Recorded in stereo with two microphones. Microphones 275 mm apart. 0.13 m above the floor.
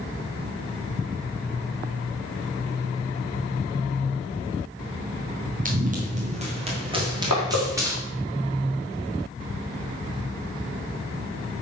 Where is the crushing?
75° left (ahead or behind), 4 m.